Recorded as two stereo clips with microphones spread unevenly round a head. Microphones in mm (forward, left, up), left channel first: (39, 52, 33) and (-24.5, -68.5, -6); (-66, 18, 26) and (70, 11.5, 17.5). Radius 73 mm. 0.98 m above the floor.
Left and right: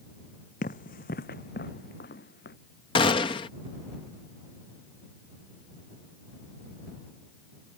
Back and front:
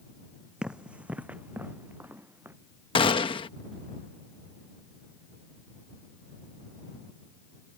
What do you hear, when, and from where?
0.6 s running footsteps: 85° left; by 2.5 s 75° left
3.0 s a gunshot: 125° left